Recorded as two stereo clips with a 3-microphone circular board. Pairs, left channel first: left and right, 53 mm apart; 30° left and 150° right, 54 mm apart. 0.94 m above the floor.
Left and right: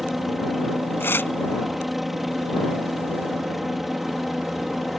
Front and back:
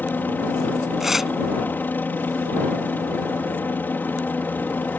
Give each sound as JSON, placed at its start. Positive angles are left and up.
{"t": 0.0, "sound": "a helicopter", "azimuth_deg": -5}
{"t": 1.0, "sound": "tearing paper", "azimuth_deg": 130}